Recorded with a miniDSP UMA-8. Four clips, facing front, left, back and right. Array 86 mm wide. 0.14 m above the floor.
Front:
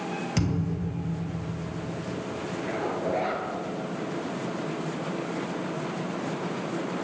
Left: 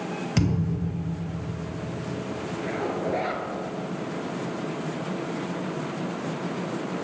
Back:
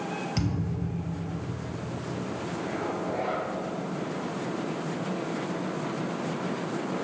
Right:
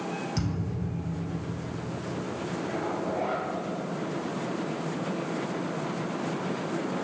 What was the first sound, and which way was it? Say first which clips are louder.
A thud: left 6 dB, front 2 dB; 70° left.